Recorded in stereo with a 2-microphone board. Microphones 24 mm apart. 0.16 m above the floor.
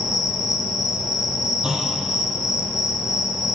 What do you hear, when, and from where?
0.0 s an insect: 15° right (ahead or behind), 1.2 m
1.6 s a clunk: 30° right (ahead or behind), 1.2 m